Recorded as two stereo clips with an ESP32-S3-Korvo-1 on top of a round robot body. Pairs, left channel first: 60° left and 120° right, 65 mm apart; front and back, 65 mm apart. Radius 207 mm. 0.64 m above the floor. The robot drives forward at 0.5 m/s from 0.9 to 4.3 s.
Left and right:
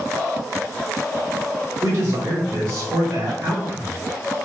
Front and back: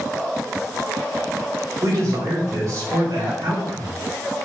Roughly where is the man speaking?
Behind right.